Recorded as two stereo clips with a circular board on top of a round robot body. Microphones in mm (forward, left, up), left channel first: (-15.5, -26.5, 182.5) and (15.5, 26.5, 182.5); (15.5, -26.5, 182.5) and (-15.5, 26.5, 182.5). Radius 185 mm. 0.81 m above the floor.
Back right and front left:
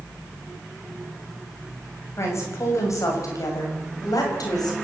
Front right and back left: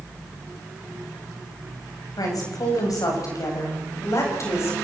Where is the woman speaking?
75° right, 7 m; by 4.8 s 100° right, 7 m.